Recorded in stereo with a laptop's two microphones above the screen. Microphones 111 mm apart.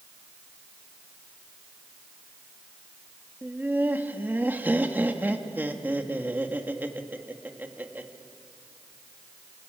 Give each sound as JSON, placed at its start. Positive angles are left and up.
{"t": 3.4, "sound": "laughter", "side_deg": -20, "distance_m": 1.9}